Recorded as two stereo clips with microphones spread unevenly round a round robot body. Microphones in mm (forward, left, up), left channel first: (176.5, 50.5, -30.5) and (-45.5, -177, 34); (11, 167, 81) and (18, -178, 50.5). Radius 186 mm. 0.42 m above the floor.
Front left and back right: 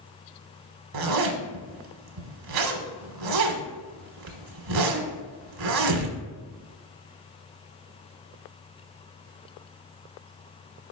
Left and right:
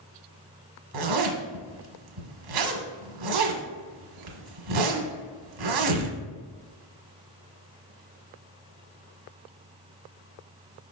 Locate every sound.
0.9 s a zipper: 115° right, 1.2 m